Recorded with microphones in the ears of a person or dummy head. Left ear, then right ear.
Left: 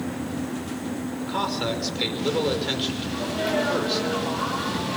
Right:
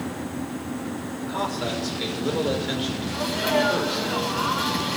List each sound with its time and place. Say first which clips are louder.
1.2 s a man speaking: left 1 dB; 20° left (ahead or behind), 5.5 m
3.1 s a sneeze: right 4 dB; 20° right (ahead or behind), 10 m